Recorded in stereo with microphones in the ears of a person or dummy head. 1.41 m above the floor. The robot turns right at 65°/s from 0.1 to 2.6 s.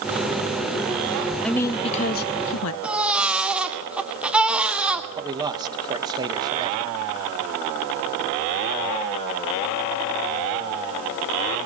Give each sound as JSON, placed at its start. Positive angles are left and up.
{"t": 1.4, "sound": "a woman speaking", "azimuth_deg": 0, "distance_m": 1.1}
{"t": 2.8, "sound": "a baby crying", "side_deg": 0, "distance_m": 1.7}
{"t": 5.2, "sound": "a man speaking", "side_deg": -25, "distance_m": 1.8}